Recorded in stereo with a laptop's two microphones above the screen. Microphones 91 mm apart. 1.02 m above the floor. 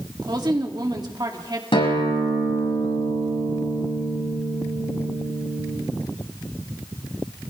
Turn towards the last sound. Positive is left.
turn(degrees=85)